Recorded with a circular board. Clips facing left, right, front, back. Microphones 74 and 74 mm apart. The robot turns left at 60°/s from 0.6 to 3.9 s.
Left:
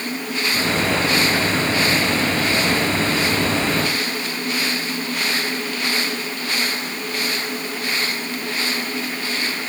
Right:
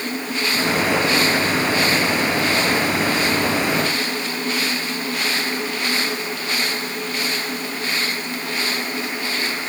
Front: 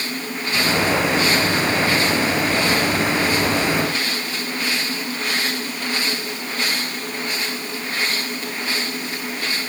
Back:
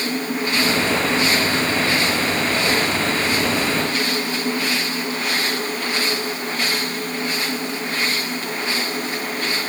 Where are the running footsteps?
I don't hear running footsteps.